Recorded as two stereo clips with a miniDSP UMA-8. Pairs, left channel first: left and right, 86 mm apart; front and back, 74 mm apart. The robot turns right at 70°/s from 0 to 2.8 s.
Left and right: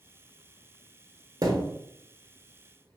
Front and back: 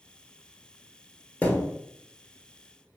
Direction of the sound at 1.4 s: 70° right.